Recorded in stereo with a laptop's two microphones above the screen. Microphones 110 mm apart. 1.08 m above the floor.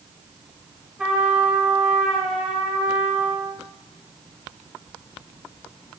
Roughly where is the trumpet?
Centre.